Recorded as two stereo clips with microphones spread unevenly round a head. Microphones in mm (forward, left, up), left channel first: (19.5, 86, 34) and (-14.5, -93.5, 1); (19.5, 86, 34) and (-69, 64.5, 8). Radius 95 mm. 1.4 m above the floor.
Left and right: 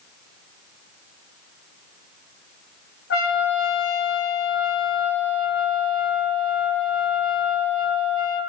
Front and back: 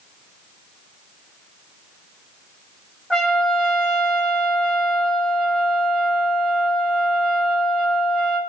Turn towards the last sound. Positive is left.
turn(degrees=90)